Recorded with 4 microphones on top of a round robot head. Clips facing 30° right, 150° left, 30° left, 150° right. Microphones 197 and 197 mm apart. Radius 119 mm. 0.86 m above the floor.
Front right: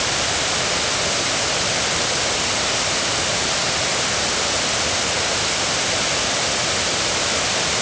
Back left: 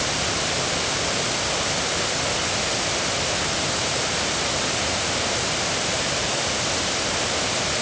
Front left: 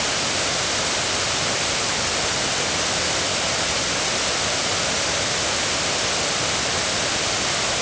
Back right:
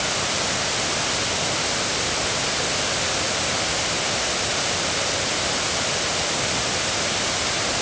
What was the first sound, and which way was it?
Only background noise.